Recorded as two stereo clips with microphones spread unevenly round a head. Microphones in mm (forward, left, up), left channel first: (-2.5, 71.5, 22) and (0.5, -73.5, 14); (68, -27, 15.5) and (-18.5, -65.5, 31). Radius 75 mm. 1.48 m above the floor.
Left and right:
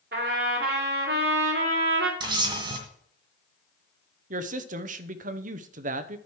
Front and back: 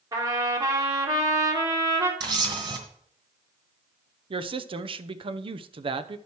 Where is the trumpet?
115° right, 2.5 m.